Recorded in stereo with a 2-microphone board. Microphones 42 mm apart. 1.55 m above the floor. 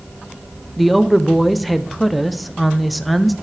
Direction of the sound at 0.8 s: Centre (ahead or behind).